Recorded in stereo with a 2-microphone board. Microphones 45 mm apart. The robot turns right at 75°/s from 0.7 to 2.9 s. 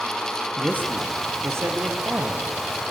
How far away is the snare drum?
No snare drum in this recording.